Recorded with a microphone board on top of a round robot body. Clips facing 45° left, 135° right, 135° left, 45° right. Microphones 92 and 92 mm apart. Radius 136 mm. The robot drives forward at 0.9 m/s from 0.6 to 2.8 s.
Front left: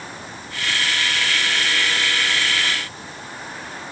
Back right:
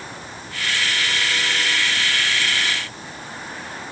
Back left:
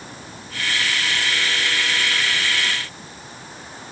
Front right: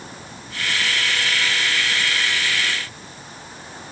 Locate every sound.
Only background noise.